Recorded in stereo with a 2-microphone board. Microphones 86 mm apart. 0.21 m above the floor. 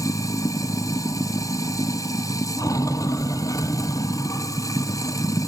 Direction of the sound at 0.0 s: 40° left (ahead or behind).